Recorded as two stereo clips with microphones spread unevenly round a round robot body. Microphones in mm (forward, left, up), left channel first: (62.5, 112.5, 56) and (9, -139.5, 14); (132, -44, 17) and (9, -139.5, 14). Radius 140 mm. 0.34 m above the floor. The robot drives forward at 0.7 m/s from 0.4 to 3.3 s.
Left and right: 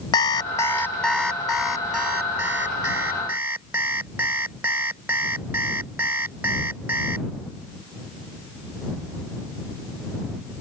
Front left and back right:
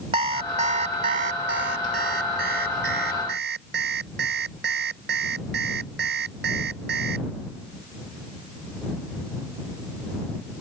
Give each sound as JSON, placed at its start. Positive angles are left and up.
{"t": 0.1, "sound": "an alarm clock", "azimuth_deg": 155}